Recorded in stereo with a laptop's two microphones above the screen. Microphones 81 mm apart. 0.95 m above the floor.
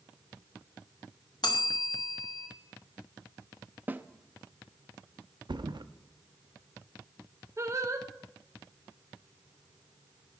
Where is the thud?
65° right (ahead or behind), 0.5 m.